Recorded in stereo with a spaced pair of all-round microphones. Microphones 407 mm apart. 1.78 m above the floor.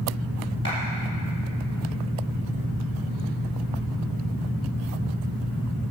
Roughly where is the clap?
Left.